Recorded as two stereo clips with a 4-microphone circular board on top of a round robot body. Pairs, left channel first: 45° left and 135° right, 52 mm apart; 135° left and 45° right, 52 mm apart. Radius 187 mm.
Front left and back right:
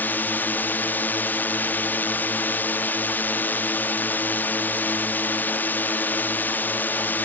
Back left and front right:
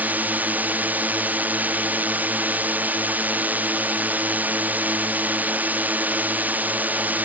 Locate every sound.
0.0 s a drone: straight ahead